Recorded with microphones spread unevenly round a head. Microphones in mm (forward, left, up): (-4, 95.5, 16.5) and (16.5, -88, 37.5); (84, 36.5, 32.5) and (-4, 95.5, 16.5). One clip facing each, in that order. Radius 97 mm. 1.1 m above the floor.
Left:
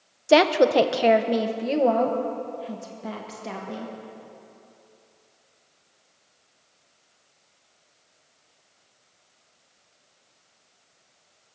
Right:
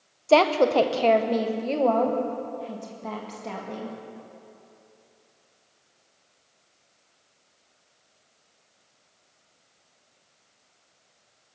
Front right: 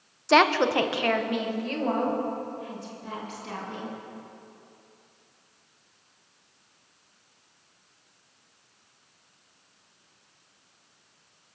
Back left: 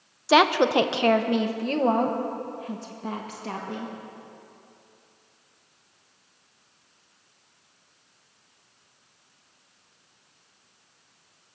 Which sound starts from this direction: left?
A woman speaking, at 0.3 s.